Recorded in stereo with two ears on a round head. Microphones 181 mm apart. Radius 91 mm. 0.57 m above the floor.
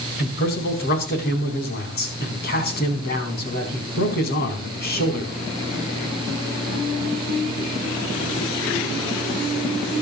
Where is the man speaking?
50° left (ahead or behind), 4 m.